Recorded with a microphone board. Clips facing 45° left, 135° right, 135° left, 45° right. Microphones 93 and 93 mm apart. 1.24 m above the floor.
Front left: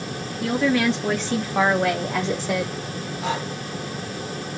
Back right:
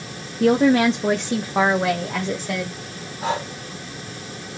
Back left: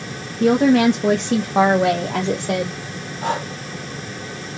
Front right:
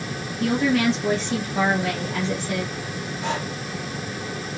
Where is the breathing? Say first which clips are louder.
Back right 3 dB, back left 5 dB; 175° left, 2 m.